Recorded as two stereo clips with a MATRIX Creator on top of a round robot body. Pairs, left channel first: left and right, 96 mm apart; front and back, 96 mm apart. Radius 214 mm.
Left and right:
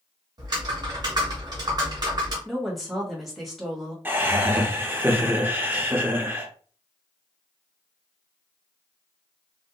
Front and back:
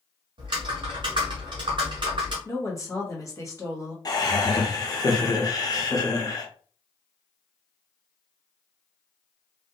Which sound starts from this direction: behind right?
Typing on a keyboard, at 0.4 s.